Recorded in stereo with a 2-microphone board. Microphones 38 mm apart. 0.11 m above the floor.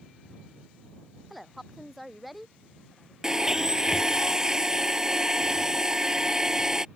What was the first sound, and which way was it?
A woman speaking, centre (ahead or behind).